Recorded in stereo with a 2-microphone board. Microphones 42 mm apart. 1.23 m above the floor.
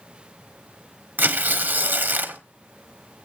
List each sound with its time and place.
1.2 s tearing paper: 55° right (ahead or behind), 1.2 m